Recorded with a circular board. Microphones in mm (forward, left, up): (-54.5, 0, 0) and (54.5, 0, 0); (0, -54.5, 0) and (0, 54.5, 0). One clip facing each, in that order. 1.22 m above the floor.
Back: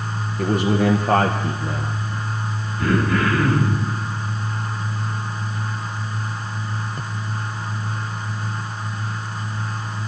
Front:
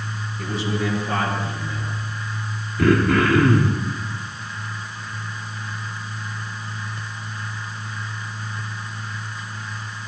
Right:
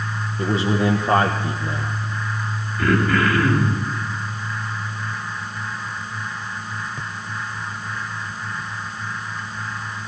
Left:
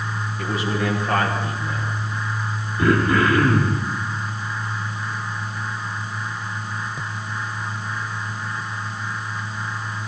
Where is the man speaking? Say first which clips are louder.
Back 7 dB, right 4 dB; 150° right, 1.2 m.